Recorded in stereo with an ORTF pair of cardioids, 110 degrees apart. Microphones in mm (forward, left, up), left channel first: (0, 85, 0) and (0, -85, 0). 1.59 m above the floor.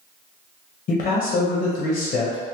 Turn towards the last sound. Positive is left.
turn(degrees=50)